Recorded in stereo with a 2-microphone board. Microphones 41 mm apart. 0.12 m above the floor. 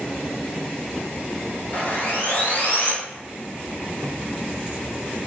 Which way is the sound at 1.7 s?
45° left (ahead or behind).